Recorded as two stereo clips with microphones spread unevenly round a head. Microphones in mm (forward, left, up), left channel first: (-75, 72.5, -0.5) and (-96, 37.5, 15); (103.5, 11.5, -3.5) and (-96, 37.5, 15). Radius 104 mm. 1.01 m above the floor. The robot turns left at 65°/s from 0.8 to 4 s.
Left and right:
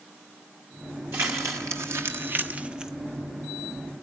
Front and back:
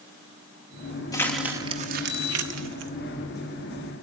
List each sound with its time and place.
1.1 s crumpling: 80° right, 0.7 m; by 2.9 s 160° left, 0.7 m